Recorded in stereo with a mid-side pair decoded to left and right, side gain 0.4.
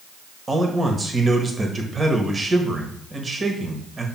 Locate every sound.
0.5 s a man speaking: 35° right, 1.5 m